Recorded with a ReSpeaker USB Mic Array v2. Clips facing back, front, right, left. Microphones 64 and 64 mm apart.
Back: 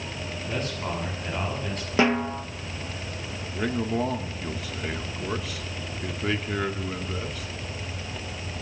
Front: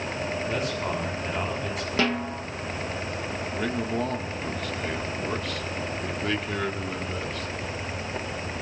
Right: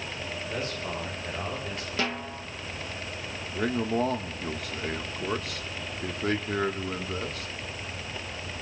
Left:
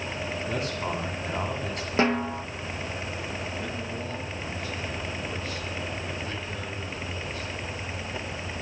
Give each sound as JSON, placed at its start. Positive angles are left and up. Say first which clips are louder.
{"t": 0.5, "sound": "a man speaking", "louder": "back 1 dB, left 3 dB", "azimuth_deg": 85, "distance_m": 7.0}
{"t": 2.0, "sound": "a snare drum", "louder": "back 5 dB, left 8 dB", "azimuth_deg": 125, "distance_m": 0.8}
{"t": 3.5, "sound": "a man speaking", "louder": "back 2 dB, right 6 dB", "azimuth_deg": -95, "distance_m": 1.6}